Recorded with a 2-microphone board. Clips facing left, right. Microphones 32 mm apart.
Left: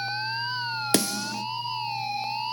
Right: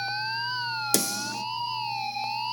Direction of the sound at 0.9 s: 35° left (ahead or behind).